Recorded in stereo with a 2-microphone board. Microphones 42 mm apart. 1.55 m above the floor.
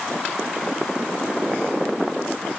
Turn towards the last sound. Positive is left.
No sound to turn to.